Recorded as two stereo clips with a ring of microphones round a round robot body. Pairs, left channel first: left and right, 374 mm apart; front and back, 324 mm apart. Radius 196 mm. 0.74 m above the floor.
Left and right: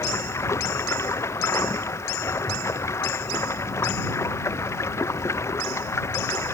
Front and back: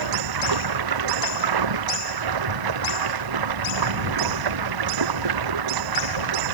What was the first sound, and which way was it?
Running water, 175° left.